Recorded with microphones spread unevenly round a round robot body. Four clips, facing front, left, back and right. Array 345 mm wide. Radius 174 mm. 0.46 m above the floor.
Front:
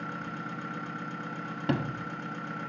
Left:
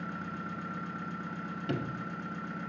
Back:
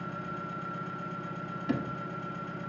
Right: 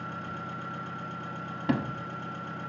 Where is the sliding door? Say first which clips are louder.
Right 7 dB, front 2 dB; 50° right, 0.6 m.